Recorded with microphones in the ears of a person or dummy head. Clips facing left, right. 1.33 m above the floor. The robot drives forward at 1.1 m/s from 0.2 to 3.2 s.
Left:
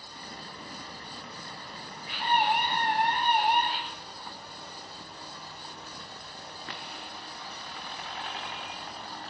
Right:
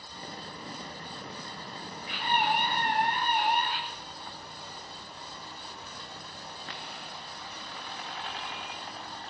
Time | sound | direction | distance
2.1 | a scream | 40° left (ahead or behind) | 9.5 m